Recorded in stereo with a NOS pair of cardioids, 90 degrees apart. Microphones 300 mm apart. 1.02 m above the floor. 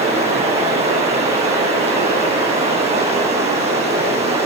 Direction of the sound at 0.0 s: 20° right.